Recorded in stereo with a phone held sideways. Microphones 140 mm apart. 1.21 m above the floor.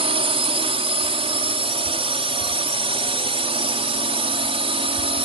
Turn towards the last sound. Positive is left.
turn(degrees=-40)  # may be behind; listen again after turning